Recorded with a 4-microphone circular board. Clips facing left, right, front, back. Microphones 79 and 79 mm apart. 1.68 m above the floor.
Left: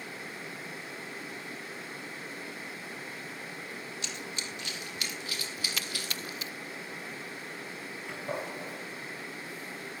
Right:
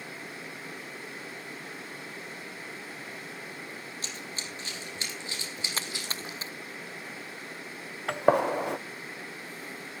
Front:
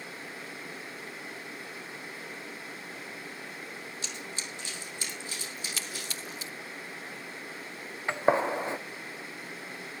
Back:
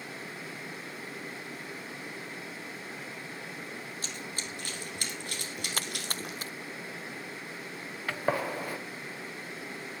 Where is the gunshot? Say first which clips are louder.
Right 14 dB, front 5 dB; 70° right, 1.0 m.